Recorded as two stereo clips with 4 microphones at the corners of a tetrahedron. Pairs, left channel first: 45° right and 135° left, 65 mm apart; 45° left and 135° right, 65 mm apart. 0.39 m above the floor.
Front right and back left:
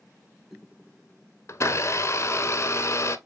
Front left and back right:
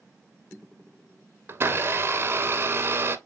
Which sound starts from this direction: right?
A blender, at 1.5 s.